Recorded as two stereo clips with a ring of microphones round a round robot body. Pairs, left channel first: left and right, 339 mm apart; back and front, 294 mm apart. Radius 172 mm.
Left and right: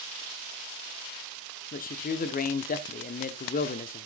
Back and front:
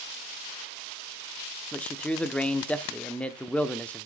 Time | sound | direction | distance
1.7 | a man speaking | 100° left | 0.9 m